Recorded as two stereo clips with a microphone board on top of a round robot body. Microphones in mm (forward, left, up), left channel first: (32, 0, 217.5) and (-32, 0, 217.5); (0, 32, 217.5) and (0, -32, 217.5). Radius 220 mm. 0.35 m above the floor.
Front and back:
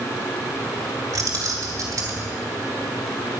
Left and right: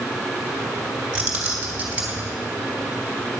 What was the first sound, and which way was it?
Keys jangling, 165° right.